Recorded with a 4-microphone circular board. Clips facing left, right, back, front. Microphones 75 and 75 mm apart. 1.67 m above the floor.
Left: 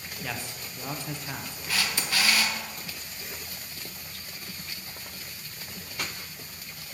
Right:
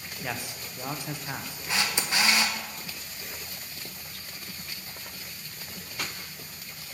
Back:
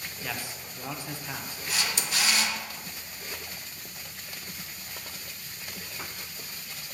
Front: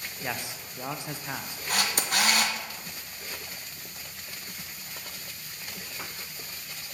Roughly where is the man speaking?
Ahead right.